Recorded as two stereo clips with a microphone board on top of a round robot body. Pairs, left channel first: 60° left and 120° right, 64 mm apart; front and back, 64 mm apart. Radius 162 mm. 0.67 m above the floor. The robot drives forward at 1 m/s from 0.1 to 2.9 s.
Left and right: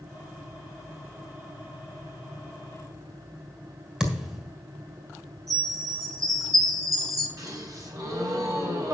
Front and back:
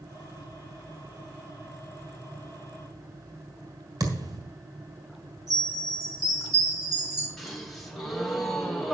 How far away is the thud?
About 3 m.